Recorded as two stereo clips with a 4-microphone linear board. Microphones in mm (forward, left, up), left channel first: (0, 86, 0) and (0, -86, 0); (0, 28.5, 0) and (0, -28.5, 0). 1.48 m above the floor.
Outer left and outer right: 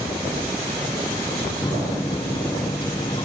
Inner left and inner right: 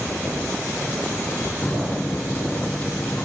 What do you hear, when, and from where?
1.6 s a microwave: 25° left (ahead or behind)